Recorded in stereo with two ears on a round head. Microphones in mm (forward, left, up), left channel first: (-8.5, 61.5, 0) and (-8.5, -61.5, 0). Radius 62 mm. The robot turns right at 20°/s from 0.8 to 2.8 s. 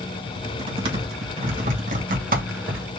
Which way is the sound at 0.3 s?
40° right (ahead or behind).